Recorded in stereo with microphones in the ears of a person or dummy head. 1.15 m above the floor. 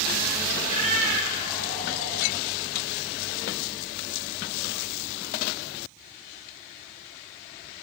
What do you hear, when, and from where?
0.6 s a cat meowing: 35° left (ahead or behind), 3 m; by 2.3 s 15° left (ahead or behind), 3.5 m